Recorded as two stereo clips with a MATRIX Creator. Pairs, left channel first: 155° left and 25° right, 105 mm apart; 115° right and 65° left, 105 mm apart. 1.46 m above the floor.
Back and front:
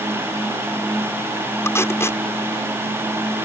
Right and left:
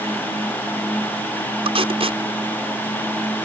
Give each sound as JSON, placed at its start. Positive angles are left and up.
{"t": 1.6, "sound": "tape being pulled", "azimuth_deg": 95}